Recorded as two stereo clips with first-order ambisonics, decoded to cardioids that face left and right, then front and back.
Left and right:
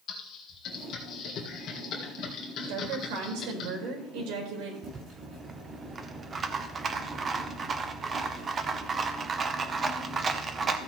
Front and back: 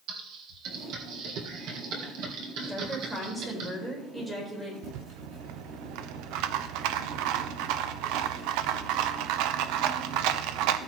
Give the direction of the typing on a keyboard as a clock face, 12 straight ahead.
7 o'clock.